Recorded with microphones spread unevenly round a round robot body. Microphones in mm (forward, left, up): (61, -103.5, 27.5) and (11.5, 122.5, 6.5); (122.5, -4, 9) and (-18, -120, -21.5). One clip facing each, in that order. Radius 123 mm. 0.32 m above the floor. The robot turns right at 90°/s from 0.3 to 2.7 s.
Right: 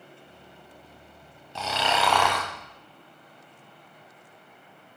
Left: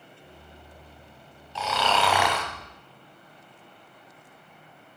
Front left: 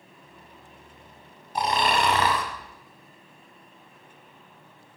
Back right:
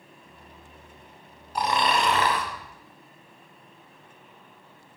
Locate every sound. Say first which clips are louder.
1.6 s snoring: left 1 dB, even; 35° right, 1.9 m; by 2.5 s 50° left, 1.9 m